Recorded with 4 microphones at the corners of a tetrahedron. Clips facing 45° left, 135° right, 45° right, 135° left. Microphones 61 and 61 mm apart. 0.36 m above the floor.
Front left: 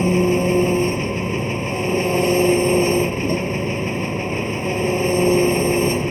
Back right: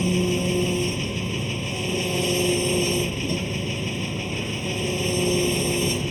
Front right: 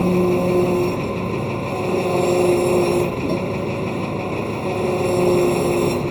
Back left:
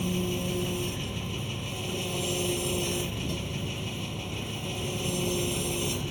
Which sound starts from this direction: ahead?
An engine running, at 0.0 s.